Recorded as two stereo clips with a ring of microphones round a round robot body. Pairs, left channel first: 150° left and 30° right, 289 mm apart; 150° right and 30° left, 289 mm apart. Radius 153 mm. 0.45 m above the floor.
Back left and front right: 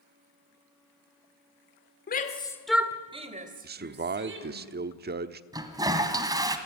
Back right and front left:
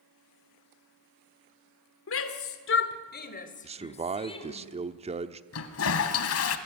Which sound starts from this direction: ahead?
A man speaking, at 3.6 s.